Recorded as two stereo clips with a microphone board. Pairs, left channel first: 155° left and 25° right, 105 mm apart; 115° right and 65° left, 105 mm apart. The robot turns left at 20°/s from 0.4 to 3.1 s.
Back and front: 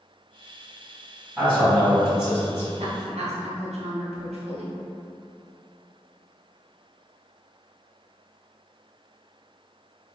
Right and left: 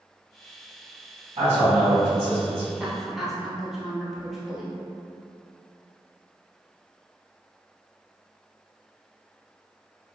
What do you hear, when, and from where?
1.4 s a man speaking: 75° left, 1.6 m; by 2.7 s 45° left, 1.6 m
2.8 s a woman speaking: 10° right, 0.6 m; by 4.8 s 20° right, 0.6 m